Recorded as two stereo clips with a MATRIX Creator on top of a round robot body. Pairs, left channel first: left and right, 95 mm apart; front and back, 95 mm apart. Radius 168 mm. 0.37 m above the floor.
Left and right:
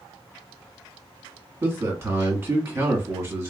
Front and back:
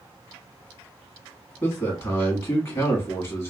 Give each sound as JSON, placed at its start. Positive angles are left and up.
{"t": 1.6, "sound": "a man speaking", "azimuth_deg": -45, "distance_m": 1.2}